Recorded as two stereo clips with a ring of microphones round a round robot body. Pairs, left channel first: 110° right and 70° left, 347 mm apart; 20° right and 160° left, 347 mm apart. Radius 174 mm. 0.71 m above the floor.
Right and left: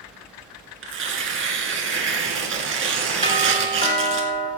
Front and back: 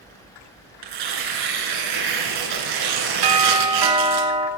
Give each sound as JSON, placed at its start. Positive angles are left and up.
{"t": 0.8, "sound": "tearing paper", "azimuth_deg": 130, "distance_m": 3.0}
{"t": 3.2, "sound": "a doorbell", "azimuth_deg": 175, "distance_m": 2.5}